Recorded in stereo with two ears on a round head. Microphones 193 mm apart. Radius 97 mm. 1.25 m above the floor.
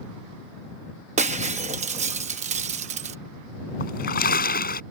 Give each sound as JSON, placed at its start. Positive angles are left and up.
{"t": 1.2, "sound": "breaking glass", "side_deg": -30}
{"t": 3.8, "sound": "a splash", "side_deg": 45}